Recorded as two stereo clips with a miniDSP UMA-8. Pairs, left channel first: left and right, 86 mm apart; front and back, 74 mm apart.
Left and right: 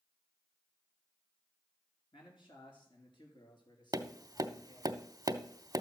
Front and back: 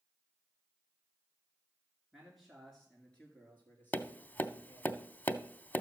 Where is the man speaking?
95° left, 2.5 m; by 4.9 s 55° left, 4 m.